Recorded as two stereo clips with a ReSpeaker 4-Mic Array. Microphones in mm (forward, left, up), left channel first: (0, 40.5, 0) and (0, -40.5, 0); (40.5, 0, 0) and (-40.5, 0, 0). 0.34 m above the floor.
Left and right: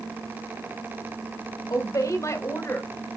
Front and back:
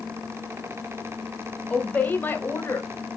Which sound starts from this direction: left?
A woman speaking, at 1.7 s.